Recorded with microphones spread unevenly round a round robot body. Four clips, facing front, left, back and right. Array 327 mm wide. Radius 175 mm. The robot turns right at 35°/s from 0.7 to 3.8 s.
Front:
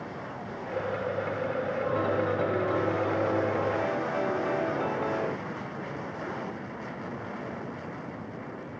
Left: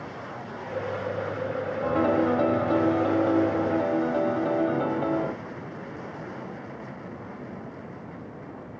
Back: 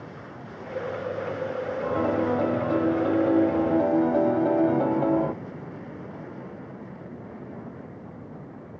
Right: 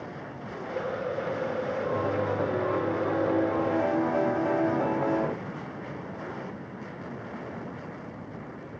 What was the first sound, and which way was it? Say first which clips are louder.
A piano: left 8 dB, back 4 dB; 105° left.